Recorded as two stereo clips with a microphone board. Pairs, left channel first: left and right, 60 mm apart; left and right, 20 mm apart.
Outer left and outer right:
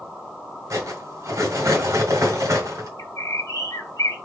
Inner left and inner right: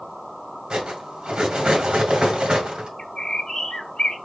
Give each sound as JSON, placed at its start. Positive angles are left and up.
{"t": 0.7, "sound": "cutlery clinking", "side_deg": -65, "distance_m": 1.8}
{"t": 3.0, "sound": "a bird", "side_deg": 75, "distance_m": 1.4}